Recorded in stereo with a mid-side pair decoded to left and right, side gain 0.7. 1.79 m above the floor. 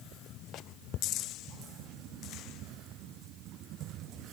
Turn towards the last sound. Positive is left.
No sound to turn to.